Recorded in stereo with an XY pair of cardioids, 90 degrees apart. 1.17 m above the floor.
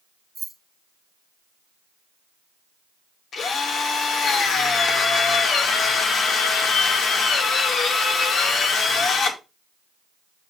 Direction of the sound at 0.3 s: 35° right.